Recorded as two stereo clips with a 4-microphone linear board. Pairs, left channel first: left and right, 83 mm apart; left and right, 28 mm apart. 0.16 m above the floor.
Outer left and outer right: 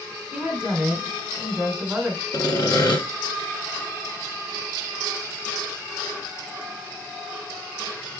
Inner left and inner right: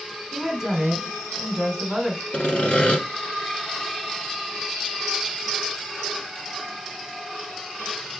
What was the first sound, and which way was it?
A woman speaking, 10° right (ahead or behind).